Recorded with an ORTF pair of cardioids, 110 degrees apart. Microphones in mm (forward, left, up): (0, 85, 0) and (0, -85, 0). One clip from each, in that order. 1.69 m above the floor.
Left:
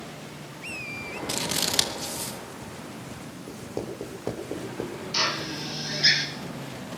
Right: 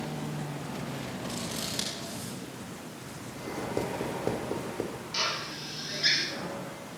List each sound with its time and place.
1.3 s scissors: 65° left, 2.5 m
3.5 s writing: straight ahead, 6 m
5.1 s a drill: 30° left, 4 m